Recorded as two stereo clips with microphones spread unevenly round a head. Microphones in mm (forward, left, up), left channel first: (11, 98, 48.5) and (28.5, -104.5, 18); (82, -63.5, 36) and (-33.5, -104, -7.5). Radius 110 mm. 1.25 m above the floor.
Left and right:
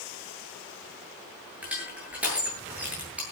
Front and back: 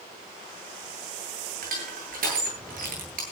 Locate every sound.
1.6 s crushing: 170° right, 9 m